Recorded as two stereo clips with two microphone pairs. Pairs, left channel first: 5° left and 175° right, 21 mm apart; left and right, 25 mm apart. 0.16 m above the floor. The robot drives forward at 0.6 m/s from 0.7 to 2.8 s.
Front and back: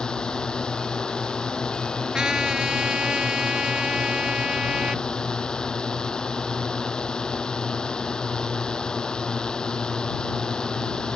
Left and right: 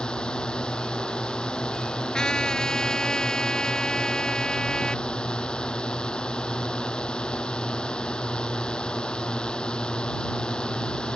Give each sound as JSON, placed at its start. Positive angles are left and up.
{"t": 0.0, "sound": "a drone", "azimuth_deg": 40}
{"t": 2.1, "sound": "a trumpet", "azimuth_deg": 140}